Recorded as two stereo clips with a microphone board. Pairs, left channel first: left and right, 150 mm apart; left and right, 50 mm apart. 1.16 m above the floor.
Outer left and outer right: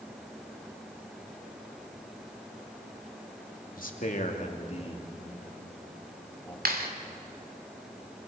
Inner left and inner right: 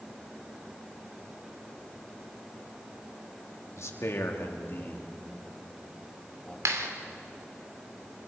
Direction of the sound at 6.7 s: 80° right.